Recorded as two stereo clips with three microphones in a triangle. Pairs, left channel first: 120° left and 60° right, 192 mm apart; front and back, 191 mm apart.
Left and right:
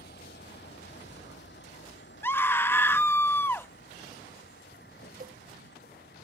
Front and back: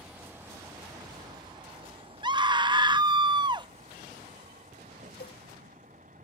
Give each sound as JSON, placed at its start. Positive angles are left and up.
{"t": 0.0, "sound": "a vehicle", "azimuth_deg": 95}
{"t": 2.2, "sound": "a scream", "azimuth_deg": 180}
{"t": 5.2, "sound": "a cowbell", "azimuth_deg": -20}